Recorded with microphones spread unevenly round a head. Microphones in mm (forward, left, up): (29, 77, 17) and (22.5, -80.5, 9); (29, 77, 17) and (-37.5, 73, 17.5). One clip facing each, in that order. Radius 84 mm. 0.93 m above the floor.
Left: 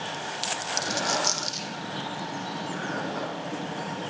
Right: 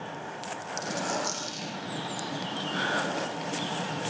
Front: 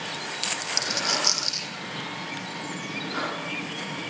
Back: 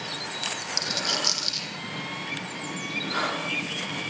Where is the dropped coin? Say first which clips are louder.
Left 2 dB, front 2 dB; 70° left, 5.5 m.